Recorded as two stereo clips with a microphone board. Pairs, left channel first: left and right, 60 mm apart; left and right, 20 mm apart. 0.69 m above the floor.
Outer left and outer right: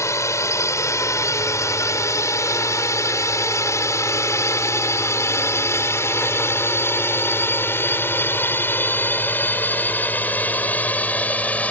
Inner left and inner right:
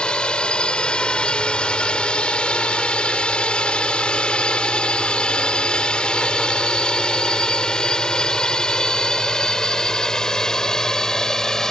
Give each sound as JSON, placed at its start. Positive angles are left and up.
{"t": 0.0, "sound": "a drone", "side_deg": 60}